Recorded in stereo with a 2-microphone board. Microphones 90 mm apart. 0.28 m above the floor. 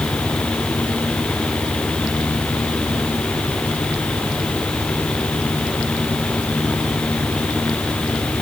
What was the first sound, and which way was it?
Only background noise.